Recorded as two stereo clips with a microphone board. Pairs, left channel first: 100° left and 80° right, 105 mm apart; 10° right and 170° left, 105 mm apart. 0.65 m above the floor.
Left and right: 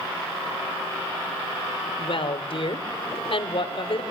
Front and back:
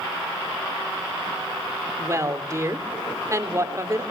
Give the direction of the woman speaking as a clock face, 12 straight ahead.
8 o'clock.